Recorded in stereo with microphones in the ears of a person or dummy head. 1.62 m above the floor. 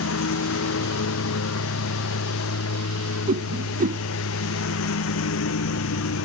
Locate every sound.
0.0 s a lawn mower: 75° left (ahead or behind)
3.3 s a whoosh: 45° right (ahead or behind)